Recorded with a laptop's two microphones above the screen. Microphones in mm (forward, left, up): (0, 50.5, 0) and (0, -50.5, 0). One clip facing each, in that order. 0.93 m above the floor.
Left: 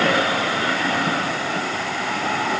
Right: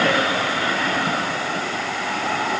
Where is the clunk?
No clunk in this recording.